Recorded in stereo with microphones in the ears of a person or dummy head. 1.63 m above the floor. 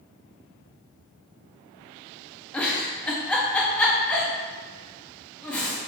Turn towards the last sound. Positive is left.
turn(degrees=10)  # may be behind; listen again after turning